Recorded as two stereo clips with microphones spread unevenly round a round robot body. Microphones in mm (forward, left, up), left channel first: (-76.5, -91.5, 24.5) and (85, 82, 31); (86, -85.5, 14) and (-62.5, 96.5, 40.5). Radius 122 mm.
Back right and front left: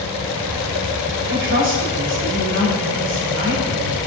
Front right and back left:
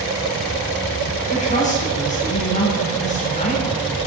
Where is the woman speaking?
5° left, 3.5 m.